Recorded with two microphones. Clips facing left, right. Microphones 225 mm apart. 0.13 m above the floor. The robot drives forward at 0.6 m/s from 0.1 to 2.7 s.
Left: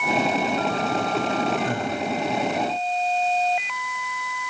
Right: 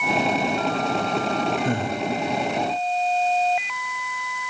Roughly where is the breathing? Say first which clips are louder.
Right 2 dB; right.